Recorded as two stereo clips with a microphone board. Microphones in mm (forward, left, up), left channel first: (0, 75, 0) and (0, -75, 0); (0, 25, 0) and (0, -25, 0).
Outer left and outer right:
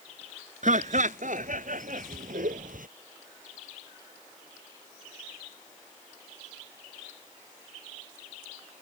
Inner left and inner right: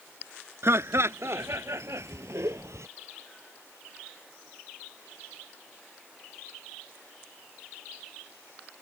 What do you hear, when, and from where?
0.6 s laughter: 60° right (ahead or behind); by 2.9 s 75° right (ahead or behind)